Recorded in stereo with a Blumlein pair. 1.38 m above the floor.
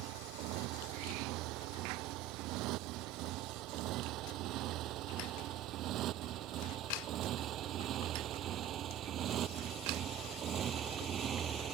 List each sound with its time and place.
0.0 s a motorcycle: 40° right; by 11.7 s 25° right